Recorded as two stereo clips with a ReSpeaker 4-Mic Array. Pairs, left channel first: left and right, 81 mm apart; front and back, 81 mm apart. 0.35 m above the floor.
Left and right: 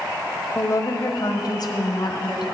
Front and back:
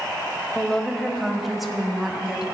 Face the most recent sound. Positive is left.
turn(degrees=95)